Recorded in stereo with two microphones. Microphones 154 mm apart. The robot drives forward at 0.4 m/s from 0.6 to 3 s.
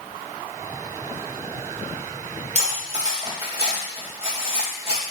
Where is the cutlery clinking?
45° right (ahead or behind), 1.4 m; by 5.1 s 40° right (ahead or behind), 1.5 m.